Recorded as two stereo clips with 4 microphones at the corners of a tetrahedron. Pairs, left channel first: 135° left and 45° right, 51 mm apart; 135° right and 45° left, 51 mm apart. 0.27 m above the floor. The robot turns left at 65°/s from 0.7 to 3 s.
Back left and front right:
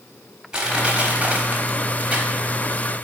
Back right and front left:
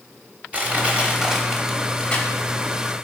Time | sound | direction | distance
0.5 | crushing | 15° left | 1.1 m